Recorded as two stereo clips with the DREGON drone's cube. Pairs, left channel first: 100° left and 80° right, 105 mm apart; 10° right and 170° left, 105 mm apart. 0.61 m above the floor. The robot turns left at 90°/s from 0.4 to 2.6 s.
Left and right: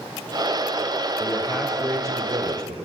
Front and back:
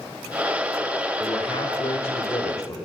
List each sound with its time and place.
1.2 s a man speaking: 55° left, 2.5 m; by 2.8 s 70° right, 2.5 m